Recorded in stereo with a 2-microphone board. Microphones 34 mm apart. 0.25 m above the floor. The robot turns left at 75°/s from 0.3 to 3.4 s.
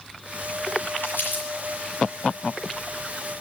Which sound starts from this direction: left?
Crumpling, at 1.0 s.